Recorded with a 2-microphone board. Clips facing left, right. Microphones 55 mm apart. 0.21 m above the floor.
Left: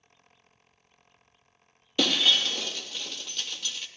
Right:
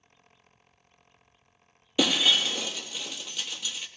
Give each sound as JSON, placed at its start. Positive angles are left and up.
{"t": 2.0, "sound": "breaking glass", "side_deg": -10, "distance_m": 2.0}